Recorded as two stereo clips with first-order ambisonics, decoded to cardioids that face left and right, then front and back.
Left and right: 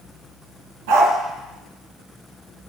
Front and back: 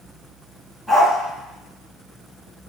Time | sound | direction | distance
0.9 | a dog barking | 85° right | 2.5 m